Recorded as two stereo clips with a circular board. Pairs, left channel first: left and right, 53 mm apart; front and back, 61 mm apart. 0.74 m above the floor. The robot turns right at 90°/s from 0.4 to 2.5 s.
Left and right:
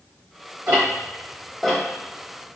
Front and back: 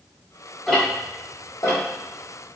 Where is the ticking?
90° right, 1.1 m; by 2.6 s 80° left, 1.1 m.